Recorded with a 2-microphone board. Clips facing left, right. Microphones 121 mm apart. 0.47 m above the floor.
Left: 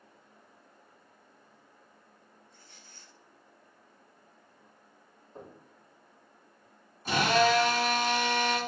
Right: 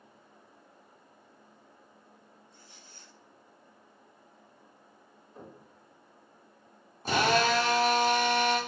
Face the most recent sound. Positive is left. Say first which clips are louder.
# left 1 dB
turn(degrees=-40)  # may be behind; listen again after turning